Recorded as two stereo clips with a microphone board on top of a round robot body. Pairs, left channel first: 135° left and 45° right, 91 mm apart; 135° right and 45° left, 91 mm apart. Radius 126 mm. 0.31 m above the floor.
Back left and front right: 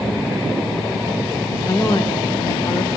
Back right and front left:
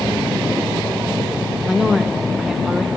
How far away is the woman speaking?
About 1.5 m.